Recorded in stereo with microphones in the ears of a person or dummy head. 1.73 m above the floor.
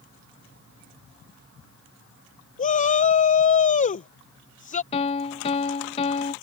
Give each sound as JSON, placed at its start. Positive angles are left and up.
{"t": 2.6, "sound": "a shout", "side_deg": 35}
{"t": 4.9, "sound": "a piano", "side_deg": 30}